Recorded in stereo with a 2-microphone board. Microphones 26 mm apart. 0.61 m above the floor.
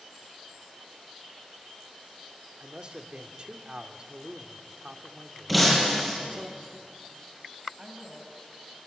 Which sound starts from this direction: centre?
Breaking glass, at 5.5 s.